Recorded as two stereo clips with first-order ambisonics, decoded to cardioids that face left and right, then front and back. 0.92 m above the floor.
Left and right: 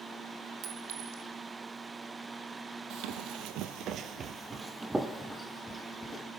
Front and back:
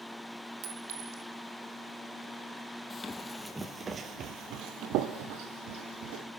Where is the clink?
135° right, 1.9 m.